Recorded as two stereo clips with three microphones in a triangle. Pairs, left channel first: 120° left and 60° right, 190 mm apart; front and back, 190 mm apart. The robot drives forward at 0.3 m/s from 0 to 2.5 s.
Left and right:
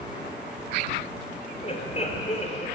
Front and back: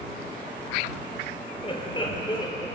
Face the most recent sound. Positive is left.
turn(degrees=65)